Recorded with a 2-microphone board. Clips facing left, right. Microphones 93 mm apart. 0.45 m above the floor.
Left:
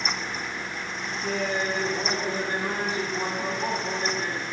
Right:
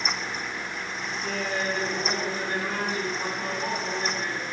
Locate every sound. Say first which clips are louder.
1.2 s laughter: left 2 dB; 20° left (ahead or behind), 3.5 m